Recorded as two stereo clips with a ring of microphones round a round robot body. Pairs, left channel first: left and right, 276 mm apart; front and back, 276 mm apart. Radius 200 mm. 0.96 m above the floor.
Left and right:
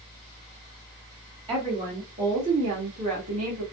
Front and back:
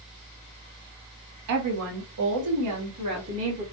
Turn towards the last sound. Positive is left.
turn(degrees=-130)